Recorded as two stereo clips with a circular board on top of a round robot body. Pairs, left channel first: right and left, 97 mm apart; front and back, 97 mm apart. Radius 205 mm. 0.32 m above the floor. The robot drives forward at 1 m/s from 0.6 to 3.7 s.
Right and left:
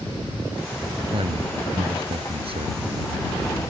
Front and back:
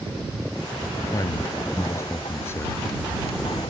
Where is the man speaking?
60° left; by 2.8 s 65° left.